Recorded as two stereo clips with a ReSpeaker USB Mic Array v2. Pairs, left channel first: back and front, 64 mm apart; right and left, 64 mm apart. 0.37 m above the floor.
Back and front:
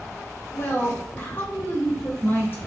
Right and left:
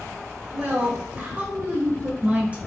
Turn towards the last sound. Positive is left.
turn(degrees=145)